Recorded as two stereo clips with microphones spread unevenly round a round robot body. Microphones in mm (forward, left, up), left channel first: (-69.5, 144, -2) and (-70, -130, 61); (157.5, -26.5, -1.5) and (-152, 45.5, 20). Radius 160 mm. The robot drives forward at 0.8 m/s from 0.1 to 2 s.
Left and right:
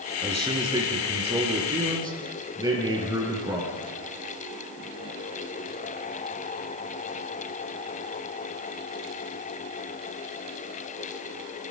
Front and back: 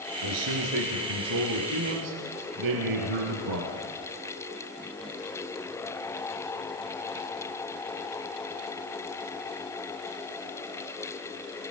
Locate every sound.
0.2 s a man speaking: 165° right, 5 m